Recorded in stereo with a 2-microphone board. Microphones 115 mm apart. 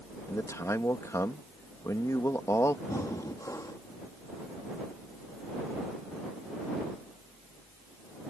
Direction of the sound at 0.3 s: 25° left (ahead or behind).